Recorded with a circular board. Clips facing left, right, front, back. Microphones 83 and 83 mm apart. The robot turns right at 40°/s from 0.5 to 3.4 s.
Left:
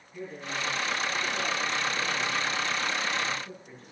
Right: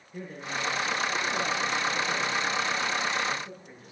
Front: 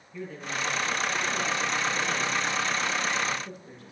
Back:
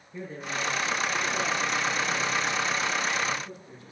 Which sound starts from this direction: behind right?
A man speaking, at 0.1 s.